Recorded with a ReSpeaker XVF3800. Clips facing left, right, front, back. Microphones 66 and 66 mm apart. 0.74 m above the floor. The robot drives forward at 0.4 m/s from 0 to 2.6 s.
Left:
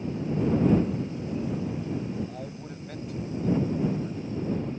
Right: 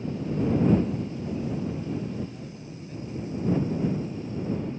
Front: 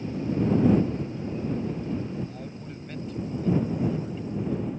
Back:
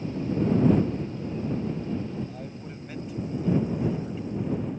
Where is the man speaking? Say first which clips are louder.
Left 2 dB, even; 95° left.